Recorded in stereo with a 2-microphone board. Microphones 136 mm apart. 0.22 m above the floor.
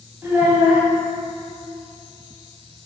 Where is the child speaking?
15° right (ahead or behind), 0.6 m.